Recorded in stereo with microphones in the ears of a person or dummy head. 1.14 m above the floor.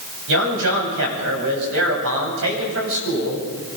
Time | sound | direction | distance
0.3 | a man speaking | 75° right (ahead or behind) | 8.5 m